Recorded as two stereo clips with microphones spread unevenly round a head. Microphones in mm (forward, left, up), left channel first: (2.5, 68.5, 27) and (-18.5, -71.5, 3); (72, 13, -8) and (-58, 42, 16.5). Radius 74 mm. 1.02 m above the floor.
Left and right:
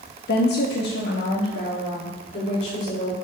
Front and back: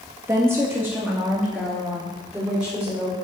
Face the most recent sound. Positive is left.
turn(degrees=80)